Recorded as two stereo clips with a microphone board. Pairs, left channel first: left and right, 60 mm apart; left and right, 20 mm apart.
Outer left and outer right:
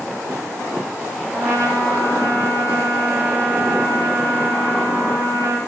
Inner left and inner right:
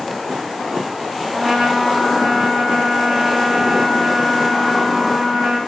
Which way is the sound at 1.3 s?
70° right (ahead or behind).